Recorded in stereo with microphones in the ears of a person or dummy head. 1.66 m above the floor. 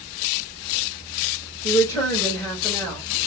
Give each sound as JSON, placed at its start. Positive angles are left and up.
{"t": 1.6, "sound": "a woman speaking", "side_deg": 15, "distance_m": 1.9}